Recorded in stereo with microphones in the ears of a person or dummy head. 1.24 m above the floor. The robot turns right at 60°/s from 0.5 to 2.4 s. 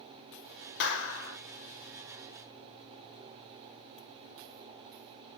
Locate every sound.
0.8 s a clap: 65° left, 0.9 m; by 1.4 s 100° left, 0.9 m